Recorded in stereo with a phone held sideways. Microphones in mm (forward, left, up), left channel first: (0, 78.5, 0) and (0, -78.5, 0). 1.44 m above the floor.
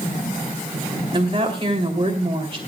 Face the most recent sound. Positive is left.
turn(degrees=-40)  # may be behind; listen again after turning